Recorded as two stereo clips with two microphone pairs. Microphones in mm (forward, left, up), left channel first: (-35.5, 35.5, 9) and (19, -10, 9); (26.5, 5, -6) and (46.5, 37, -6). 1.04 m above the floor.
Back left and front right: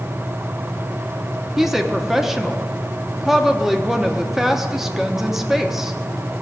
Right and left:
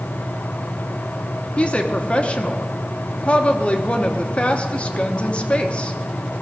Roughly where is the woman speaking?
Behind right.